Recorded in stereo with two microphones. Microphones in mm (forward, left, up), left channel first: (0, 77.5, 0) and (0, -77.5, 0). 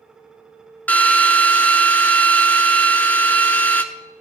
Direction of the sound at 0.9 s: 10° left (ahead or behind).